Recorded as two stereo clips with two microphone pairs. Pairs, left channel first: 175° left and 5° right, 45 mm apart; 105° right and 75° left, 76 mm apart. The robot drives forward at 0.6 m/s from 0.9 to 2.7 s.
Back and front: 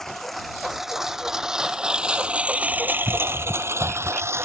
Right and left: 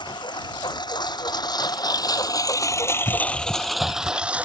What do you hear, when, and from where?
0.0 s a lawn mower: 100° right; by 4.5 s 5° left